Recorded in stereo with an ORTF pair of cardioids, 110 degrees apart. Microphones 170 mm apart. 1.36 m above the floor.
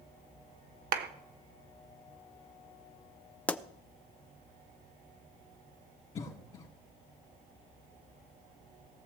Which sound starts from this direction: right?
A clap, at 0.9 s.